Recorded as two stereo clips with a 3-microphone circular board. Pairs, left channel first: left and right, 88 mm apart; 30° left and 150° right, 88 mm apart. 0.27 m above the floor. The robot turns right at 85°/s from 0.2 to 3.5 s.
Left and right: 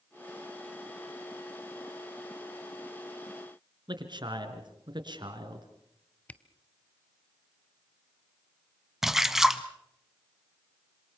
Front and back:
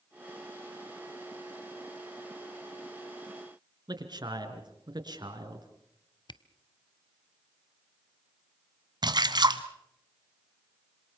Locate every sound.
3.9 s a man speaking: 120° right, 3.5 m
6.3 s a camera shutter: 20° left, 0.7 m
9.0 s a splash: 175° right, 1.3 m